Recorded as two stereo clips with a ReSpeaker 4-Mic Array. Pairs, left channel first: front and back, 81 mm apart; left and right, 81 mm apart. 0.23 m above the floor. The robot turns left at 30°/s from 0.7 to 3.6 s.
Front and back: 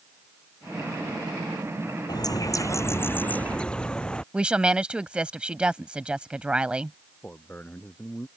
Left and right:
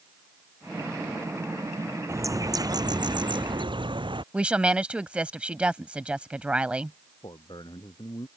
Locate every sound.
2.1 s a bird: 35° right; by 4.2 s 80° right
4.3 s a woman speaking: 135° right
7.2 s a man speaking: 70° left